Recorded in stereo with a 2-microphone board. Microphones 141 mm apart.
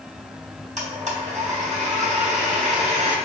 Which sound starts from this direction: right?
A blender, at 0.8 s.